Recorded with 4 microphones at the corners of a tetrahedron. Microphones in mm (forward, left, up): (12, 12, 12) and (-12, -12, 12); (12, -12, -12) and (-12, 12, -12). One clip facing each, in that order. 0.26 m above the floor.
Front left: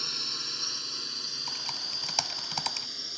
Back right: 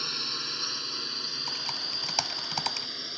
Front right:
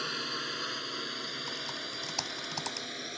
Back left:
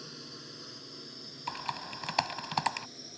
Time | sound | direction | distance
0.0 | a drone | 60° right | ?
1.5 | typing on a keyboard | 145° left | ?